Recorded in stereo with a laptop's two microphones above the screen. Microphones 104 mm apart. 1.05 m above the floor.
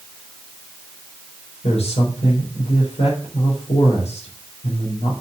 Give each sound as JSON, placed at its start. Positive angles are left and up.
{"t": 1.6, "sound": "a man speaking", "side_deg": 80, "distance_m": 4.0}